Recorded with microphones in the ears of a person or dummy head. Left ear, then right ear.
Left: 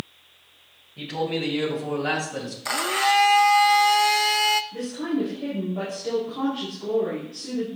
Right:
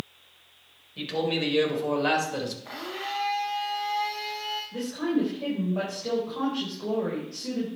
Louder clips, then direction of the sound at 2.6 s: Left 12 dB; 55° left (ahead or behind).